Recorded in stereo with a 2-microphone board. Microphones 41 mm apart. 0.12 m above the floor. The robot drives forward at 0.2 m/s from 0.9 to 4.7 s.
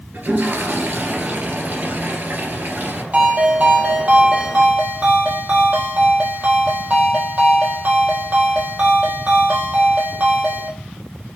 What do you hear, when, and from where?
0.1 s a toilet flushing: 55° right (ahead or behind), 2.5 m
3.1 s a ringtone: 40° right (ahead or behind), 1.9 m; by 10.7 s 35° right (ahead or behind), 2 m